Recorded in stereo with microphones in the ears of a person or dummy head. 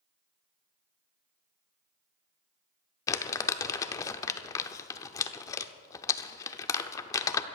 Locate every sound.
3.1 s crumpling: 25° left (ahead or behind), 0.6 m